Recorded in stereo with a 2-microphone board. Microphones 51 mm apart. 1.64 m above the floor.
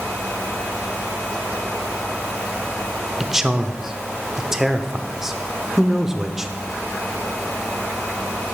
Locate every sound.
3.2 s a man speaking: 10° right (ahead or behind), 0.6 m